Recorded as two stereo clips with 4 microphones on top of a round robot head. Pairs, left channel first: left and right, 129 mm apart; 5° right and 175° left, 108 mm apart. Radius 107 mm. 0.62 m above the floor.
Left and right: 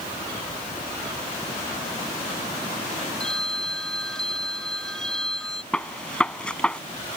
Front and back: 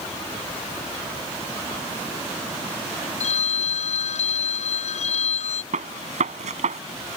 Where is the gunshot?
170° left.